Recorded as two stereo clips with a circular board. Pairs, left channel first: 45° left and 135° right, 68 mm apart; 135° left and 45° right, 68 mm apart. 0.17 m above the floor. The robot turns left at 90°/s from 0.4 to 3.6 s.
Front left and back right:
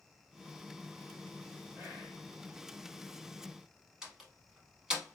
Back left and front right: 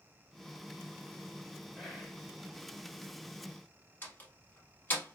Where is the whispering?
105° right, 1.2 m; by 2.3 s 150° right, 1.2 m.